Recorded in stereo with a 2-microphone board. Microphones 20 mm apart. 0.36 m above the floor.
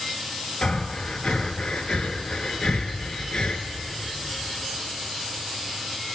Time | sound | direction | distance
0.6 | breathing | 60° left (ahead or behind) | 1.1 m